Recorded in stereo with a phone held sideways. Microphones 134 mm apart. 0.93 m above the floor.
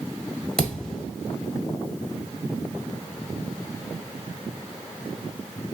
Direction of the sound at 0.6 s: 5° left (ahead or behind).